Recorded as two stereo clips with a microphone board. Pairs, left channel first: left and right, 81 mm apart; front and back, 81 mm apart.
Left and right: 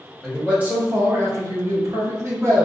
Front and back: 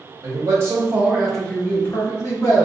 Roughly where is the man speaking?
Behind.